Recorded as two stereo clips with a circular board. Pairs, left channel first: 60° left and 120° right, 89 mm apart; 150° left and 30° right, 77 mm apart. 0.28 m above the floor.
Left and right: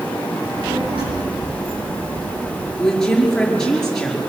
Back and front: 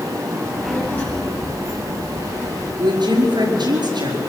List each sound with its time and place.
0.4 s a child speaking: 135° right, 9 m; by 2.7 s 150° right, 8.5 m
2.8 s a woman speaking: 25° right, 5 m